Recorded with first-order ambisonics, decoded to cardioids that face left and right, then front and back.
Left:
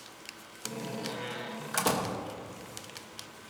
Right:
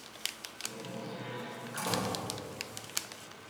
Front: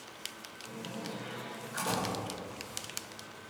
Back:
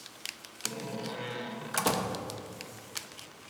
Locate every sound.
0.7 s a door slam: 135° left, 1.5 m